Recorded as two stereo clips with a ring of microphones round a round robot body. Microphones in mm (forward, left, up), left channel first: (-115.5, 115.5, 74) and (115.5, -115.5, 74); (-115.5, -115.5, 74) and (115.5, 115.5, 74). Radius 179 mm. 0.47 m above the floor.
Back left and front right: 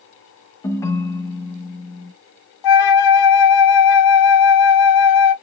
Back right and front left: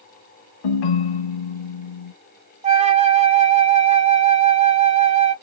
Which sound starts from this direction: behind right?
A ringtone, at 0.6 s.